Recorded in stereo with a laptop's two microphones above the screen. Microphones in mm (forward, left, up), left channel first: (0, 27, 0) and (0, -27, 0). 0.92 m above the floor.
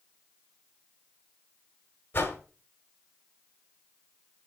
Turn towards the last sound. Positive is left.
turn(degrees=40)  # may be behind; listen again after turning